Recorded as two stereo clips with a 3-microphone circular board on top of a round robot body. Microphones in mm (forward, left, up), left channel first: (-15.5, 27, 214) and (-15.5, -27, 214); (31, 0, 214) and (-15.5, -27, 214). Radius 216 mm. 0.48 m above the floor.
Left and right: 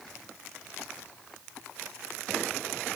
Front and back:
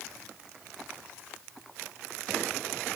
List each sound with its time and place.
Only background noise.